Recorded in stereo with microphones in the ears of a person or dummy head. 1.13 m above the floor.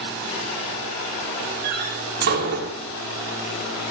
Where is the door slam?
55° right (ahead or behind), 2.5 m.